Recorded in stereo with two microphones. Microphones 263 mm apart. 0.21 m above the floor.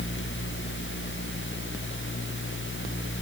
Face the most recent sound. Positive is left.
No sound to turn to.